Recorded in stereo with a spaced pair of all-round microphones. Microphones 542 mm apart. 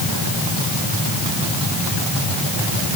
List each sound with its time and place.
Only background noise.